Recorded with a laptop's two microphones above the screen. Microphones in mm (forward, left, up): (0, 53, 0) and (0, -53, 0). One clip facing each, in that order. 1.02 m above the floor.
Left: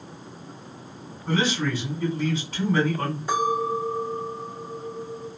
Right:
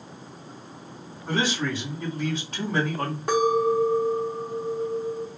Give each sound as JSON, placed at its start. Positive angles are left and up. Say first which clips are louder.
{"t": 1.3, "sound": "a man speaking", "louder": "left 2 dB", "side_deg": -25, "distance_m": 1.9}
{"t": 3.3, "sound": "a clink", "louder": "right 4 dB", "side_deg": -70, "distance_m": 1.2}